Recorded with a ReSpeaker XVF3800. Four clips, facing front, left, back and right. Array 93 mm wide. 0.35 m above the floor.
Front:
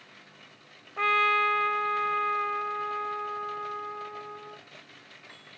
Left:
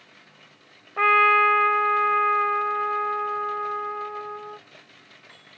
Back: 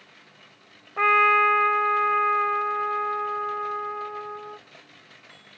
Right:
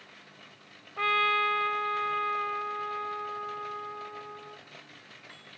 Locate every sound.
1.0 s a trumpet: 125° left